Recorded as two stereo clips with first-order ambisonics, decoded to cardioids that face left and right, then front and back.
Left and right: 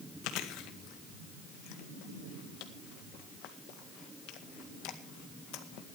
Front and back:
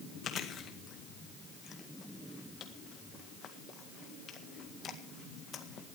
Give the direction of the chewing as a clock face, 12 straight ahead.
10 o'clock.